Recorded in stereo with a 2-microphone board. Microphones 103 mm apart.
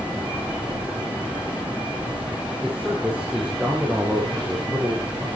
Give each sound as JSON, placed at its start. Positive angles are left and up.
{"t": 2.6, "sound": "a man speaking", "side_deg": -10, "distance_m": 6.0}